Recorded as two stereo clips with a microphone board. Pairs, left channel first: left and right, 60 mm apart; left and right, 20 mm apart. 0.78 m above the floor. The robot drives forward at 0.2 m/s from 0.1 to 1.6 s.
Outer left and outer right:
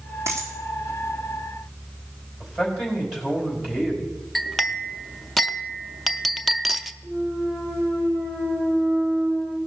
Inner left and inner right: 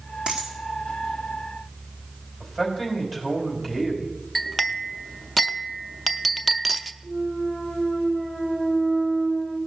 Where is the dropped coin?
50° right (ahead or behind), 3 m.